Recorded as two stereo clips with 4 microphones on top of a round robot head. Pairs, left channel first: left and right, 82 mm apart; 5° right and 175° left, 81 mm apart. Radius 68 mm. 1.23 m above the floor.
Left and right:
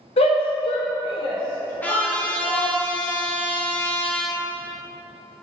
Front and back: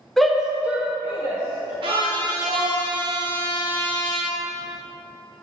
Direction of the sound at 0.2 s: 85° left.